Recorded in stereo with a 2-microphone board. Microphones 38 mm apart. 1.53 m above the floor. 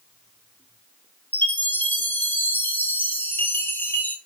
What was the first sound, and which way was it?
A chime, 60° left (ahead or behind).